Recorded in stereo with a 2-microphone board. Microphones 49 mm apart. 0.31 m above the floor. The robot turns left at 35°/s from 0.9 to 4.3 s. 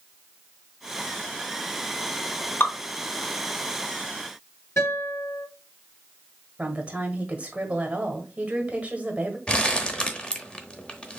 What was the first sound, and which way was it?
Dripping, 50° left (ahead or behind).